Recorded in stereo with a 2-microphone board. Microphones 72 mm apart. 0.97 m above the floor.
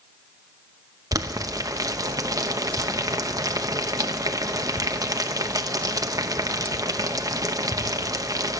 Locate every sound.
1.1 s boiling: 55° right (ahead or behind), 0.8 m